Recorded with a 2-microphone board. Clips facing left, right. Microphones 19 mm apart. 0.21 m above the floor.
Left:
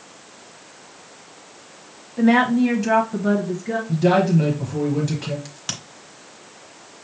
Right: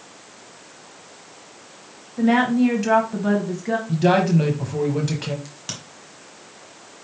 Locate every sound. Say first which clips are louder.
2.2 s a woman speaking: left 1 dB; 15° left (ahead or behind), 1.1 m; by 3.8 s 35° right (ahead or behind), 1.3 m
3.9 s a man speaking: left 1 dB; 15° right (ahead or behind), 1.1 m
5.5 s a crack: left 3 dB; 20° left (ahead or behind), 1.3 m